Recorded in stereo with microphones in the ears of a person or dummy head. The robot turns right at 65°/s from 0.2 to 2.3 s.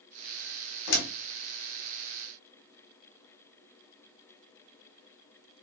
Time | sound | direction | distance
0.9 | a door slam | 60° left (ahead or behind) | 1.4 m